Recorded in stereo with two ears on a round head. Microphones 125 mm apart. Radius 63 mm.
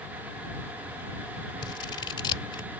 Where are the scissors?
35° left (ahead or behind).